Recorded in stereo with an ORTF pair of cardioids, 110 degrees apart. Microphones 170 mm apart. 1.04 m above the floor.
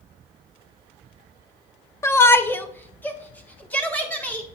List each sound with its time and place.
2.0 s a shout: 15° left, 0.6 m; by 4.5 s 10° left, 2 m